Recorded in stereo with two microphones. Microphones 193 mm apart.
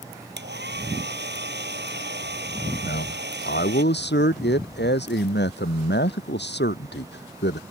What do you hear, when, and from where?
0.4 s a hair dryer: 75° right (ahead or behind)
2.8 s a man speaking: 70° left (ahead or behind)